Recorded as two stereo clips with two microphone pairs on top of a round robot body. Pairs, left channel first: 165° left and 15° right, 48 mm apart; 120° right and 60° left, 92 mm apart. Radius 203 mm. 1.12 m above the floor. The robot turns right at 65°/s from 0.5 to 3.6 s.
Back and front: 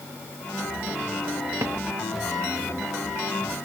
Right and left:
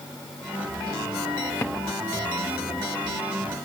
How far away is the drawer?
About 0.6 m.